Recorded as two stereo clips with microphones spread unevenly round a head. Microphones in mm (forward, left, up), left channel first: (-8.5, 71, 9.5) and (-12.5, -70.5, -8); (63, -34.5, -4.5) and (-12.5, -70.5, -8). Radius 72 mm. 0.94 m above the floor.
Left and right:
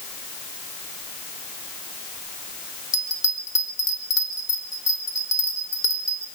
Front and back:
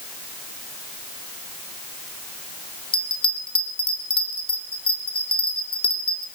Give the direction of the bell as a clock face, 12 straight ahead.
11 o'clock.